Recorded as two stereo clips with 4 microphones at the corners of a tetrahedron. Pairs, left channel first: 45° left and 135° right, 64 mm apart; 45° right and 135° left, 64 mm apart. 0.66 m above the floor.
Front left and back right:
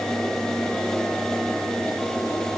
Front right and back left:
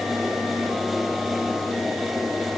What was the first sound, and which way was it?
Only background noise.